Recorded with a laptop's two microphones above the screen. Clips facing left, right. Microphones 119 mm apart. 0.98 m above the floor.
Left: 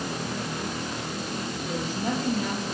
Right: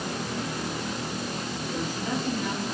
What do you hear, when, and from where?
1.7 s a woman speaking: 60° left (ahead or behind), 7 m